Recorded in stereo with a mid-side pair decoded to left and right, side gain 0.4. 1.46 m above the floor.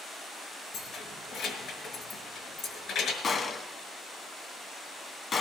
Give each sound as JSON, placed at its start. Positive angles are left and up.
{"t": 0.7, "sound": "keys jangling", "azimuth_deg": 70, "distance_m": 5.0}
{"t": 3.2, "sound": "a gunshot", "azimuth_deg": 50, "distance_m": 2.0}